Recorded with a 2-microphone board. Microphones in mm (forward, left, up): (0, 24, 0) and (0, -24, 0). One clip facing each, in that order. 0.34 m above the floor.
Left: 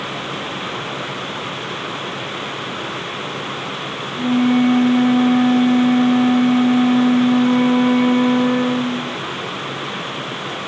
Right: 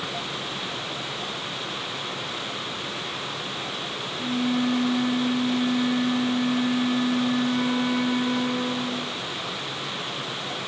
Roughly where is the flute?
Left.